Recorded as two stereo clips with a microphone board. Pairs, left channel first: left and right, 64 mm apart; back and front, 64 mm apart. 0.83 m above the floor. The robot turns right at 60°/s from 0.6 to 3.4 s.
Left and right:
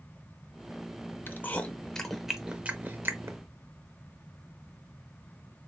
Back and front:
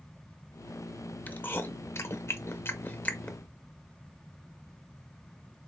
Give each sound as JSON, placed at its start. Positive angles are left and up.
{"t": 1.3, "sound": "chewing", "azimuth_deg": 125, "distance_m": 0.6}